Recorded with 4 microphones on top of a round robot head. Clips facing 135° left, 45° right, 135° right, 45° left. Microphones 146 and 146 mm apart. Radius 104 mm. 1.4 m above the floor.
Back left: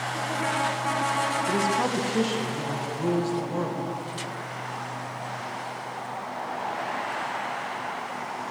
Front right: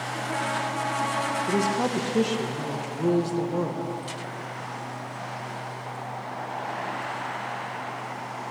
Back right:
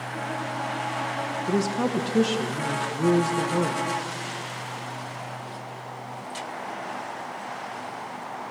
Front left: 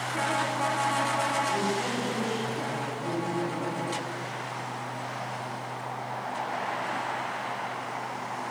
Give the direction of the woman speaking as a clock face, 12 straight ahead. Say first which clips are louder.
Front right 2 dB, back right 4 dB; 4 o'clock.